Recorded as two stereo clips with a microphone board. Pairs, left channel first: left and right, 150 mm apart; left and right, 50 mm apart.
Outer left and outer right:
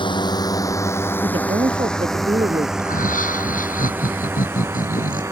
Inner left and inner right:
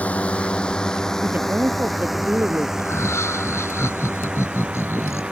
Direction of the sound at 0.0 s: 35° left (ahead or behind).